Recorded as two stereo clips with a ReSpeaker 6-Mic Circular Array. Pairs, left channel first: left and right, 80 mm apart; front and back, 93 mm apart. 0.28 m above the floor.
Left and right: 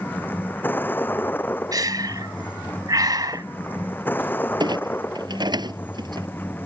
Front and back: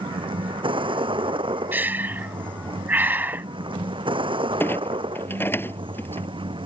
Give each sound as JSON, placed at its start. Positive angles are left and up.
{"t": 0.0, "sound": "a vehicle", "azimuth_deg": 155}
{"t": 1.7, "sound": "breathing", "azimuth_deg": -110}
{"t": 4.6, "sound": "a clunk", "azimuth_deg": -65}